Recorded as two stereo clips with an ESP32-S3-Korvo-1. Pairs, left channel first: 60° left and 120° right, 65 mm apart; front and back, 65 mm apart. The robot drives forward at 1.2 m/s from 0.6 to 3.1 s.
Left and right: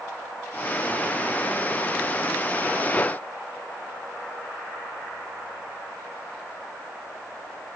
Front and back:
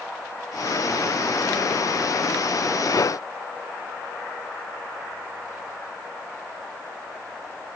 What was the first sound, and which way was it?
Only background noise.